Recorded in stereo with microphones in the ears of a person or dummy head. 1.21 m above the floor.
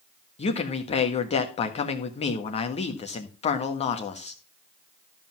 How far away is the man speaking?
About 1.4 m.